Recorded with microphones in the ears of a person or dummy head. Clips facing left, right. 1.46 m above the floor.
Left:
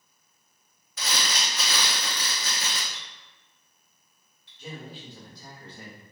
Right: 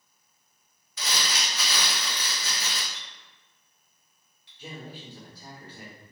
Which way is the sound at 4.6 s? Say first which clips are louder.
Left 1 dB; 5° right (ahead or behind).